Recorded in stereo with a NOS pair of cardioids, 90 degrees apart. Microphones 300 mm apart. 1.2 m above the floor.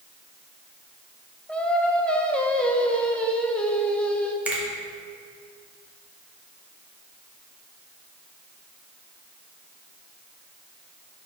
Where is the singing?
5° left, 0.6 m.